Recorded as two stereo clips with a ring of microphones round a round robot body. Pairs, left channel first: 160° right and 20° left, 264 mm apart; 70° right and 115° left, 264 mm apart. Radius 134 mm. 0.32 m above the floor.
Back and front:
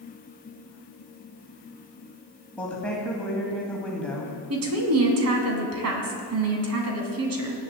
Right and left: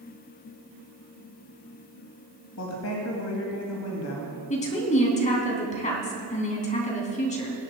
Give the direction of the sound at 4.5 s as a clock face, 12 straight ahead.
12 o'clock.